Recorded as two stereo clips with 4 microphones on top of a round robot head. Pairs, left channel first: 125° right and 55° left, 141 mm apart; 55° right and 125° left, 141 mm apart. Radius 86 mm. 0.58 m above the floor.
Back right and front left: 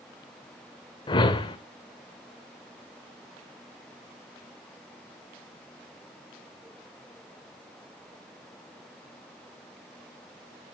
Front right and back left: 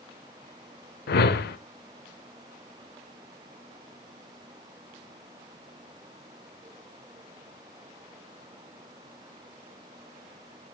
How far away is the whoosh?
About 0.7 m.